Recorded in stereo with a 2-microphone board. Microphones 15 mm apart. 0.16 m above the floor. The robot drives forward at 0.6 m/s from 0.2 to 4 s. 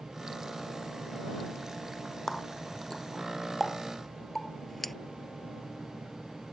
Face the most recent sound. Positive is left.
turn(degrees=10)  # may be behind; listen again after turning